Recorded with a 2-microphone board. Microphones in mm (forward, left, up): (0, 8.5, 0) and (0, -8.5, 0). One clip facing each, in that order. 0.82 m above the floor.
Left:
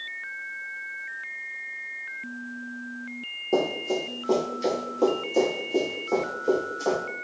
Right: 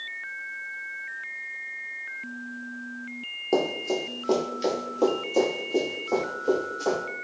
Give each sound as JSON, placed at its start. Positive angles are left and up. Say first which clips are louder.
{"t": 3.5, "sound": "running footsteps", "louder": "even", "side_deg": -35, "distance_m": 0.9}